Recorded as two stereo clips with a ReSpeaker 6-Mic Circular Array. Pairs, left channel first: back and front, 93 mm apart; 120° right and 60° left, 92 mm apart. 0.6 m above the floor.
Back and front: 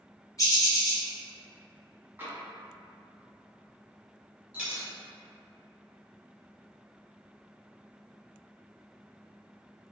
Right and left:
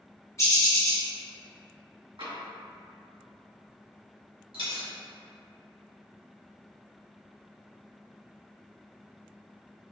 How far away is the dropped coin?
About 1.4 m.